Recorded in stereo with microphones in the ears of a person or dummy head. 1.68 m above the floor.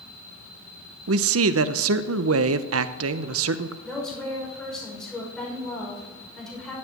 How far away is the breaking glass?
I don't hear breaking glass.